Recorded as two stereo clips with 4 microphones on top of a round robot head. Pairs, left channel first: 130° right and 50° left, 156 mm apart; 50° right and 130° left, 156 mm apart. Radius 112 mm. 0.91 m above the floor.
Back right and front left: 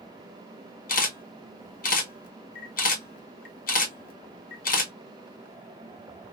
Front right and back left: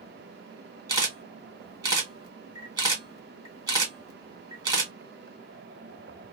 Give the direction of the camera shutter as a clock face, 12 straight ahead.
5 o'clock.